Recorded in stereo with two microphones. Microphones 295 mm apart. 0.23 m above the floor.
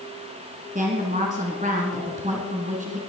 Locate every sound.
0.8 s a woman speaking: 25° right (ahead or behind), 2 m